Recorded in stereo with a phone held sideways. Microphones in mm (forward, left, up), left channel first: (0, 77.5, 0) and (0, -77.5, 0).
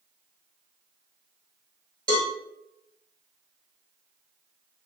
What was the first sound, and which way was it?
A cowbell, 30° right (ahead or behind).